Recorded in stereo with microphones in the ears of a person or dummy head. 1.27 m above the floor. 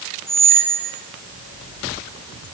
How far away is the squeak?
About 5 m.